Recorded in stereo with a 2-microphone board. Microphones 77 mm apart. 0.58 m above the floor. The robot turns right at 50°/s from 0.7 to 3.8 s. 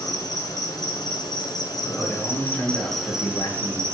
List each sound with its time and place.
0.0 s an insect: 65° left, 1.5 m; by 4.0 s 140° right, 1.5 m
1.9 s a man speaking: 5° right, 2.5 m; by 3.9 s 90° left, 2.5 m